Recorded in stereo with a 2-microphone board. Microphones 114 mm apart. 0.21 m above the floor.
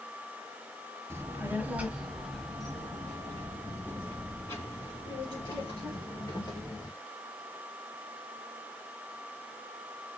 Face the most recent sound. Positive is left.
turn(degrees=30)  # may be behind; listen again after turning